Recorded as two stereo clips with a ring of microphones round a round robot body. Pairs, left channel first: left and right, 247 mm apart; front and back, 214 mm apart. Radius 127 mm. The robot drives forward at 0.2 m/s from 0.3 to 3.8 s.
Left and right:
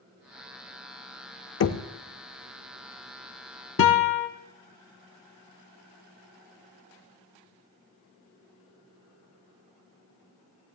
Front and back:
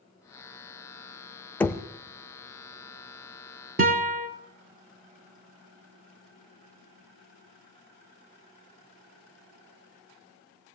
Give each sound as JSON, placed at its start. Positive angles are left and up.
{"t": 1.6, "sound": "knocking", "azimuth_deg": 80, "distance_m": 0.8}
{"t": 3.8, "sound": "a guitar", "azimuth_deg": 130, "distance_m": 1.0}